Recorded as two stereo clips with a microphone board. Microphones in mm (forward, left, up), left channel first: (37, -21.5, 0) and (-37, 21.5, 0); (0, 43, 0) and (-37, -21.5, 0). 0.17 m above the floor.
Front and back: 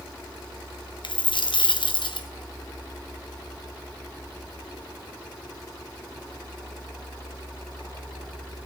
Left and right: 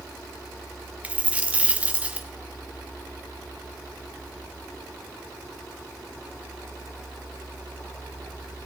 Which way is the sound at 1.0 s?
50° right.